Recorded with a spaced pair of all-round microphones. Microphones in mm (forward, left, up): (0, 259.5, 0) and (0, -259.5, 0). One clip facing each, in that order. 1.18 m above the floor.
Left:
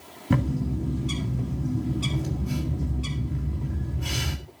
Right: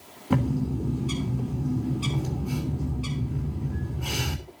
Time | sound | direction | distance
0.3 | a bird | 40° left (ahead or behind) | 3 m